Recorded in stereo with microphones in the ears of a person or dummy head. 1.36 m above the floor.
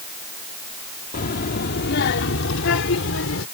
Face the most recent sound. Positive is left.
turn(degrees=80)